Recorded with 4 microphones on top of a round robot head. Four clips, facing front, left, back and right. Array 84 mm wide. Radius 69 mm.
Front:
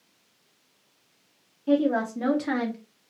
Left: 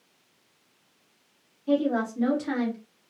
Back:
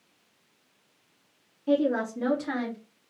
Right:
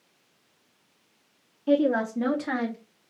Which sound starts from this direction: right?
A woman speaking, at 1.7 s.